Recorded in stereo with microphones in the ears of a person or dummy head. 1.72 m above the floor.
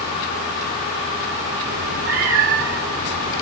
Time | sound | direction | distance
1.7 | a cat meowing | 65° right (ahead or behind) | 2.5 m